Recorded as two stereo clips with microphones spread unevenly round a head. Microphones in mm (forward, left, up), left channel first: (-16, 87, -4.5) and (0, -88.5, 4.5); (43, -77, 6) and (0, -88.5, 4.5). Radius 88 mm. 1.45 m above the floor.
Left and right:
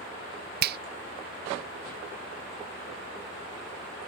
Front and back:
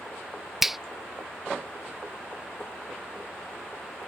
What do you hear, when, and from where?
0.6 s a finger snap: 80° right